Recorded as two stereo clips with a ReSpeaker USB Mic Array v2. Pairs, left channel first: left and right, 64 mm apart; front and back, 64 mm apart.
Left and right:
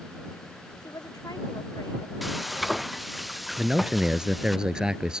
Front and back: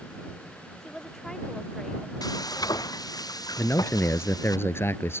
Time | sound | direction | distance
0.8 | a woman speaking | 85° left | ?
2.2 | frying | 5° right | ?
3.6 | a man speaking | 20° right | ?